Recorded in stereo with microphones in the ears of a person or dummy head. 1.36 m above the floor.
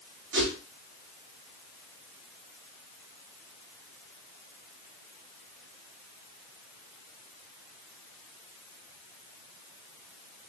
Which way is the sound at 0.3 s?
60° right (ahead or behind).